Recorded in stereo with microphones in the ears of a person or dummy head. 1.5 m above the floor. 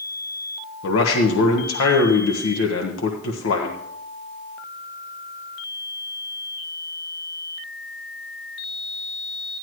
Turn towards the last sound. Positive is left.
turn(degrees=85)